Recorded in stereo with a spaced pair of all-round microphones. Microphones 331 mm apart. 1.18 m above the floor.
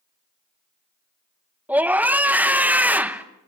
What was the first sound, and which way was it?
A scream, 5° right (ahead or behind).